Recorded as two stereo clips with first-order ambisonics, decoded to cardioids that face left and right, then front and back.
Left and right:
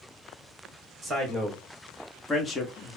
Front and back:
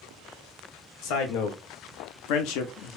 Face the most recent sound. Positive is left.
turn(degrees=25)